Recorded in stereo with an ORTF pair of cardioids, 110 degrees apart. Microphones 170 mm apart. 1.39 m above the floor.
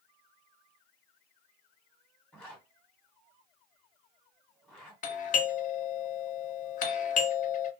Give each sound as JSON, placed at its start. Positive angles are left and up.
{"t": 2.3, "sound": "a zipper", "azimuth_deg": 5, "distance_m": 1.6}
{"t": 5.0, "sound": "a doorbell", "azimuth_deg": 50, "distance_m": 0.7}